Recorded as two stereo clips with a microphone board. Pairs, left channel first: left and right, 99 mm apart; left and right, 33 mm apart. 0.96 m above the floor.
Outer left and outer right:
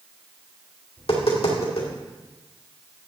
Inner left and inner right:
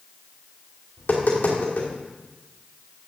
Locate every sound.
1.0 s tapping: 80° left, 2.5 m